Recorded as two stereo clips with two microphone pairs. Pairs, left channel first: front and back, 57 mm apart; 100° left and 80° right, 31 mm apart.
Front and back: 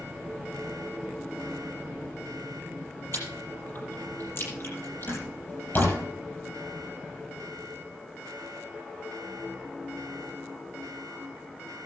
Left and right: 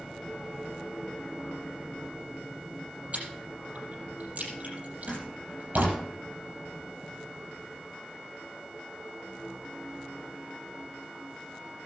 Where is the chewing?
40° right, 6.5 m.